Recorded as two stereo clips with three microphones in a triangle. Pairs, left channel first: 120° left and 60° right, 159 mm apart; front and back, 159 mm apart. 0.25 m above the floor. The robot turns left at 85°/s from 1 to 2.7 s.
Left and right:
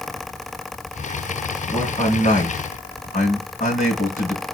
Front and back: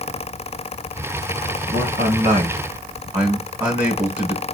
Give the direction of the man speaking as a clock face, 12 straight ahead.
6 o'clock.